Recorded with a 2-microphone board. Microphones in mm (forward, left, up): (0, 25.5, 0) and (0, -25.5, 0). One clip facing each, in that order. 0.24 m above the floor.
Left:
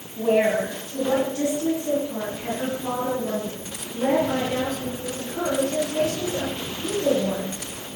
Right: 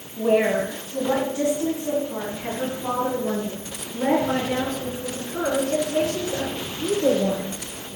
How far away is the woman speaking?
About 1.9 m.